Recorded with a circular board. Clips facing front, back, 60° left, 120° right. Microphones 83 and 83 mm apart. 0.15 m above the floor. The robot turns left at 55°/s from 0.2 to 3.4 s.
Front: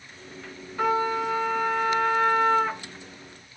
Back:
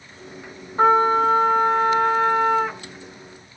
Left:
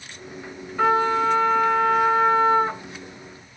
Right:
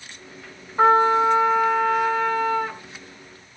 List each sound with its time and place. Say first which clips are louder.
0.8 s a trumpet: back 8 dB, right 3 dB; 160° right, 1.6 m; by 2.8 s 90° left, 1.6 m